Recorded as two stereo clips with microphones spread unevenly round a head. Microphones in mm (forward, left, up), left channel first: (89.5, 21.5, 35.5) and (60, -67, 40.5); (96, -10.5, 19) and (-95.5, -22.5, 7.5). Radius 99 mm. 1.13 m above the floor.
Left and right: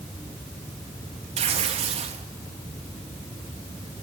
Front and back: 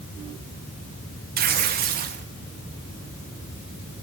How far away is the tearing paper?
About 1.6 m.